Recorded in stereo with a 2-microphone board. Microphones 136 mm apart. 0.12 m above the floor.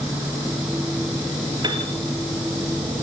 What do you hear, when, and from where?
1.6 s a piano: 30° right (ahead or behind), 2 m